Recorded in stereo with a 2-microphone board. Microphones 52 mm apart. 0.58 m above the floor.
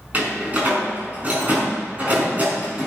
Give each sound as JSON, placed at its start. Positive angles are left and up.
{"t": 0.1, "sound": "a door slam", "side_deg": -30, "distance_m": 5.0}